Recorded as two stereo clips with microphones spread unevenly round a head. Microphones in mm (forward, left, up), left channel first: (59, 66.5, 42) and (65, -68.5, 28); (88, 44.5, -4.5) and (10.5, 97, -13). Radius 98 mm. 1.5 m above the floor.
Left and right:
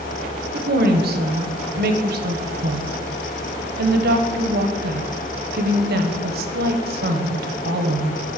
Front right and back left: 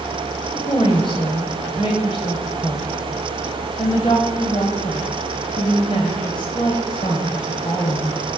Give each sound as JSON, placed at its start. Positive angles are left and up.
{"t": 0.5, "sound": "a woman speaking", "azimuth_deg": -95, "distance_m": 0.9}